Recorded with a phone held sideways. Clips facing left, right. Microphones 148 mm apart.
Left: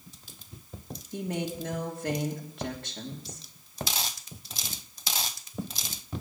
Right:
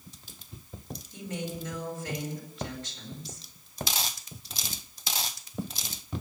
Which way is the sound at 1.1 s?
65° left (ahead or behind).